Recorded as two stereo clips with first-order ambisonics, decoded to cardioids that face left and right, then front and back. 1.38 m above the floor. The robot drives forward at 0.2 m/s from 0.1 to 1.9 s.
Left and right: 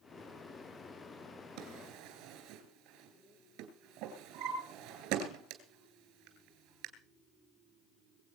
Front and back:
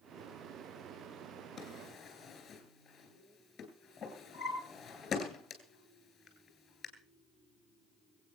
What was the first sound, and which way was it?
A drawer, 70° right.